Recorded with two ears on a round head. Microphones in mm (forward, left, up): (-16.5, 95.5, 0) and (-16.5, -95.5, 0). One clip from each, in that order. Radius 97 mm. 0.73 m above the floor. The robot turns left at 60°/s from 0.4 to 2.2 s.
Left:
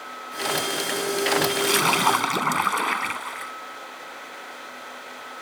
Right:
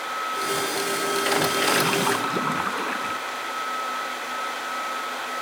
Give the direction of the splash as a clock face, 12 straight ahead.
7 o'clock.